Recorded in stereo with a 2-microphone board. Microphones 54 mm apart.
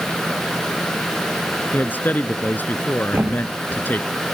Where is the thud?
40° right (ahead or behind).